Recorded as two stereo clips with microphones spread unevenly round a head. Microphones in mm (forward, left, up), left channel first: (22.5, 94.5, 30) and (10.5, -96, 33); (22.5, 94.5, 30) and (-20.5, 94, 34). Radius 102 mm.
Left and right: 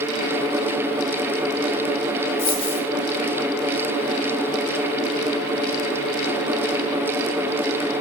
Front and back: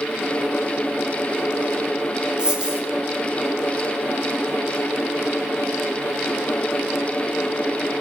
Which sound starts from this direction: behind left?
A dropped coin, at 2.4 s.